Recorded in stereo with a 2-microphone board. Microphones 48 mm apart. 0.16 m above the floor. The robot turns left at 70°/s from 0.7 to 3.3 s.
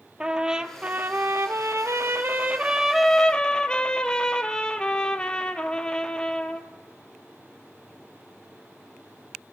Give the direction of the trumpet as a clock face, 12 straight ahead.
1 o'clock.